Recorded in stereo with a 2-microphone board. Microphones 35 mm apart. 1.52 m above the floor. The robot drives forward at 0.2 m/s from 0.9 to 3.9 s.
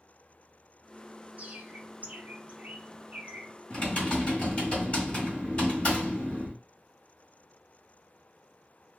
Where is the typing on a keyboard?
30° left (ahead or behind), 1.5 m.